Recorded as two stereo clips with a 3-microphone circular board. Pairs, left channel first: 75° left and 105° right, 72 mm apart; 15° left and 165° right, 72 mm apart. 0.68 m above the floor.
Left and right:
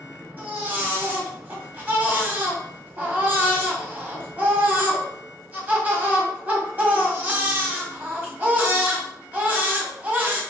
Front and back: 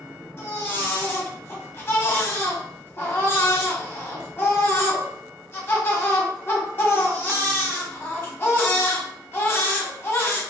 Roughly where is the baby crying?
Ahead right.